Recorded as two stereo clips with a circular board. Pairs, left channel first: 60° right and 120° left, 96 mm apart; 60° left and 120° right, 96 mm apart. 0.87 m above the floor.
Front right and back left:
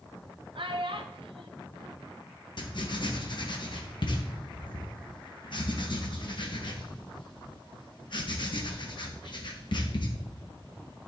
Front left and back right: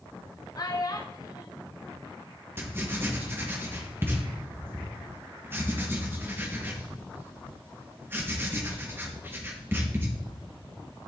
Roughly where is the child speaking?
Left.